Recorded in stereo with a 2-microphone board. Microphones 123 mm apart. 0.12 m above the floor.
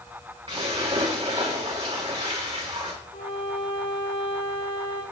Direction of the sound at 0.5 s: 45° right (ahead or behind).